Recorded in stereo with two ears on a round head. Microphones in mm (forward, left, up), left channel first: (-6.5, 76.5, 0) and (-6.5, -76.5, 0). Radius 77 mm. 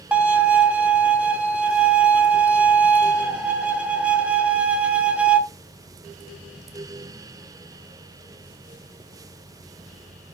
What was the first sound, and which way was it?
A violin, 10° right (ahead or behind).